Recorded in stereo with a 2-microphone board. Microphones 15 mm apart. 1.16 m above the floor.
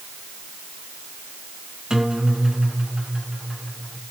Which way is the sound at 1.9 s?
50° right (ahead or behind).